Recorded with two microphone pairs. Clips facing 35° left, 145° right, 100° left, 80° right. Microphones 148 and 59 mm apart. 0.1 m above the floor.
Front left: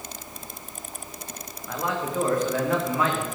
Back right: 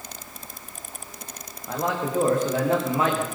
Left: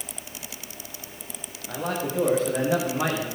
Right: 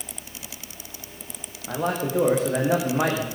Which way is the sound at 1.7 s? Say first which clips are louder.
Back right 2 dB, right 3 dB; 85° right.